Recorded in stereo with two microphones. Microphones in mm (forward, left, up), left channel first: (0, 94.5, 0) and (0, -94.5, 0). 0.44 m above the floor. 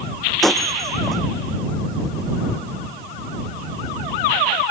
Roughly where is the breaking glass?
Centre.